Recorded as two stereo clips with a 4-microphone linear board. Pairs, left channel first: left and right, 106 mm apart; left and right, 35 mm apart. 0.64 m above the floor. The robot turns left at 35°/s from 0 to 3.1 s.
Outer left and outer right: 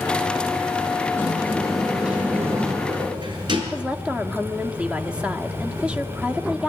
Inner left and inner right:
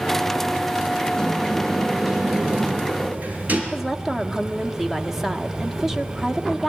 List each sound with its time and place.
1.1 s a sliding door: 25° left, 5 m; by 3.6 s 45° right, 5 m
3.7 s a woman speaking: 10° right (ahead or behind), 1.4 m